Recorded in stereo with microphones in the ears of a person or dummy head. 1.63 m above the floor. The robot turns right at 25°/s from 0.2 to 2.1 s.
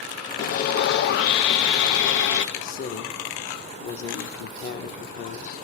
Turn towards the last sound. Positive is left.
turn(degrees=50)  # may be behind; listen again after turning